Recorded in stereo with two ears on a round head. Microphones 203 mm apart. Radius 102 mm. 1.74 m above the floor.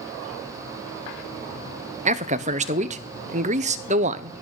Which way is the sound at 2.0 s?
30° right (ahead or behind).